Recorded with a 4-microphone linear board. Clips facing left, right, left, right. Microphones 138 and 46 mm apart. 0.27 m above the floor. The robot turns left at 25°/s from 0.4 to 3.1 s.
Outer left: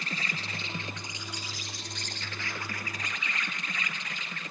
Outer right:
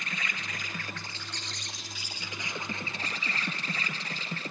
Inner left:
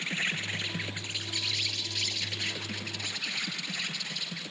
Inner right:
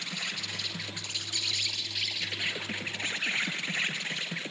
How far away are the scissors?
No scissors in this recording.